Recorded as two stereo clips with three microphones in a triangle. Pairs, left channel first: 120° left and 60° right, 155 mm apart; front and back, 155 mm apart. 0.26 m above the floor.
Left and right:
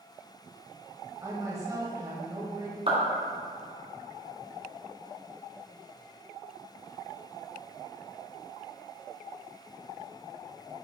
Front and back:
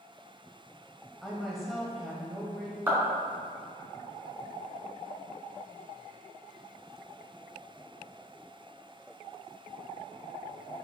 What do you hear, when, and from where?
1.2 s a woman speaking: 90° right, 1.0 m
2.9 s a clap: 105° right, 2.5 m